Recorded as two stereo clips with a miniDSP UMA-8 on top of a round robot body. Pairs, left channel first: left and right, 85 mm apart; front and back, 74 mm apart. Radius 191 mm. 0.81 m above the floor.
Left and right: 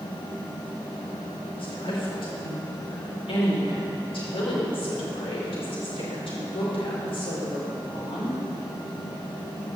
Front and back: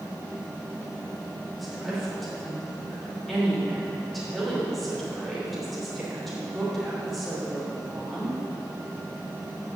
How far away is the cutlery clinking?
No cutlery clinking in this recording.